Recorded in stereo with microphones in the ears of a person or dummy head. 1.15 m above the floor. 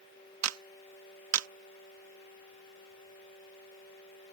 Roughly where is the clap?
Right.